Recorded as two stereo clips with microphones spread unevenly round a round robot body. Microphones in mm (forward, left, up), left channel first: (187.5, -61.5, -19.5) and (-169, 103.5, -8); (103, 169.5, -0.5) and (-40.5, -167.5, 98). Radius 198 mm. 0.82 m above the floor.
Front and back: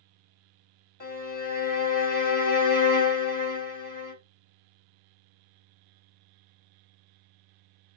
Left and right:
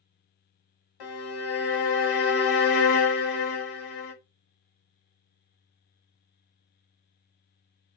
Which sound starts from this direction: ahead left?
A violin, at 1.0 s.